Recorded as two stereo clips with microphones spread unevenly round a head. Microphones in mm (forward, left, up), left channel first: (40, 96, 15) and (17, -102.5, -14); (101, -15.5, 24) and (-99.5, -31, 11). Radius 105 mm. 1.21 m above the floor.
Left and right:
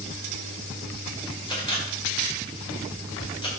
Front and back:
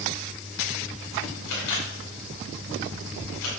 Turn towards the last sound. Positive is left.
turn(degrees=15)